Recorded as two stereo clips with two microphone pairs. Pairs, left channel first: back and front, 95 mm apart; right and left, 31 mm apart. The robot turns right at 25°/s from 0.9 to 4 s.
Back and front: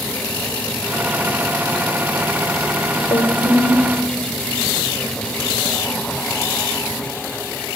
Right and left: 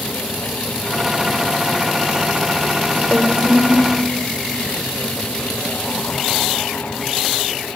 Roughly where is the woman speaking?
Behind.